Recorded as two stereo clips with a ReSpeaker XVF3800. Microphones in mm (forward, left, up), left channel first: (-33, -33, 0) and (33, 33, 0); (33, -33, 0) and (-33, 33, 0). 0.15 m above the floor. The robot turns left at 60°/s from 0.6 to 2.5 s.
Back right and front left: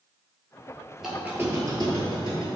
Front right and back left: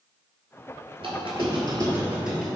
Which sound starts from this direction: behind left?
A squeak, at 1.0 s.